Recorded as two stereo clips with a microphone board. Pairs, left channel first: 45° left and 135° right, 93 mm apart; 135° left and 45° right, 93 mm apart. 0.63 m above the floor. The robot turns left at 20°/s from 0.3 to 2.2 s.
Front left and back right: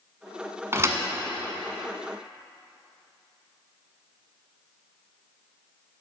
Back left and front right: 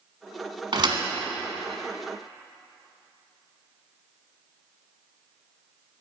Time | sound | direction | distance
0.7 | a thud | 75° right | 1.1 m